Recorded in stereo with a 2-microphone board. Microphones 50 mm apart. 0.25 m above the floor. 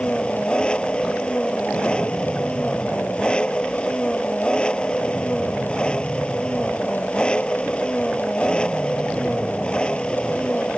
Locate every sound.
0.0 s an engine running: 20° left (ahead or behind)